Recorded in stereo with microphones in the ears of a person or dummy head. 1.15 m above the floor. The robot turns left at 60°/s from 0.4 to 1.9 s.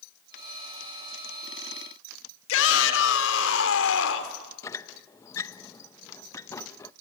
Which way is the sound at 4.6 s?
15° left (ahead or behind).